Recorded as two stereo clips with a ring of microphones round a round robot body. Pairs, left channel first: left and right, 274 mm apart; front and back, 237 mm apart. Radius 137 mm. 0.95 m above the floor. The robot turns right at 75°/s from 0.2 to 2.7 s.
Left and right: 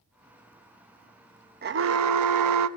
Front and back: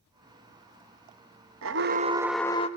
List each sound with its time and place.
1.6 s an alarm: 145° right, 1.1 m; by 2.7 s 65° right, 1.1 m